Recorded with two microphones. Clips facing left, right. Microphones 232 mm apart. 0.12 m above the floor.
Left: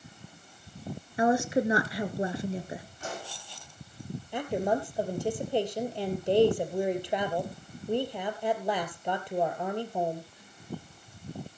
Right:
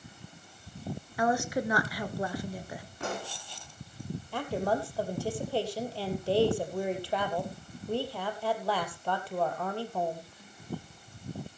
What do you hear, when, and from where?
1.2 s a woman speaking: 25° left (ahead or behind), 1.3 m
3.0 s a pop: 65° right (ahead or behind), 5.5 m
4.3 s a woman speaking: 20° left (ahead or behind), 3 m